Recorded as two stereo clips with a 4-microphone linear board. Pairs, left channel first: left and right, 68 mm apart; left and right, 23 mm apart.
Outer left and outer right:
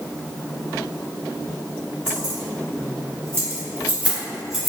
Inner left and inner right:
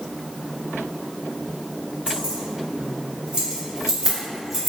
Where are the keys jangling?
60° right (ahead or behind), 1.3 m; by 4.7 s centre (ahead or behind), 0.9 m.